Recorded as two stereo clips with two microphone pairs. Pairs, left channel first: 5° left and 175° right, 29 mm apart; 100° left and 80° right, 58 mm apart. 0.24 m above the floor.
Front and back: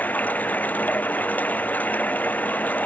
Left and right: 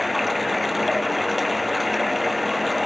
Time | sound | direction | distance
0.0 | running water | 10° left | ?